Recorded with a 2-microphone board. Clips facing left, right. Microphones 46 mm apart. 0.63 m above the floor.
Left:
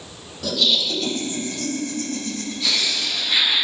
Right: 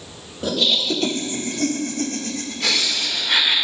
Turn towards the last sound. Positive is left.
turn(degrees=-65)  # may be behind; listen again after turning